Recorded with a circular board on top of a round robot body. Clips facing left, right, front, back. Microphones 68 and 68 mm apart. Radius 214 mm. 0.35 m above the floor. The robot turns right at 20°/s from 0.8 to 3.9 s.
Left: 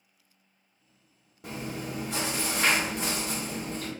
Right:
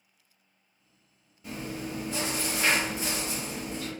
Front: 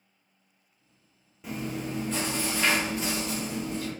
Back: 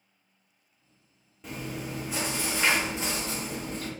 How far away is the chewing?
About 1.3 m.